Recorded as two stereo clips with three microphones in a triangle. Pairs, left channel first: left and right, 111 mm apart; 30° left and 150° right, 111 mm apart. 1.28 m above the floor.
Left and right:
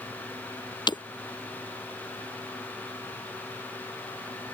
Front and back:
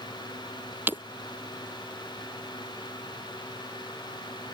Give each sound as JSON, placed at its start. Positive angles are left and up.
{"t": 0.9, "sound": "breaking glass", "azimuth_deg": 140}